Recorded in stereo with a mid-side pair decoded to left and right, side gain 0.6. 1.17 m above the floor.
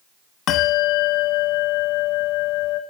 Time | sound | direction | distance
0.5 | a bell | 70° left | 1.4 m